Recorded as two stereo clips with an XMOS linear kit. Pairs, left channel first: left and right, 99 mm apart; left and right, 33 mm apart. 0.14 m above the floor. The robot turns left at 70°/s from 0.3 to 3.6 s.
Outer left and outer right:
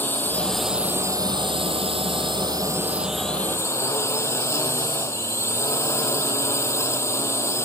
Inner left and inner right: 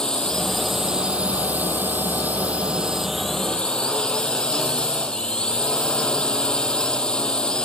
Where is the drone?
20° left; by 7.7 s 150° left.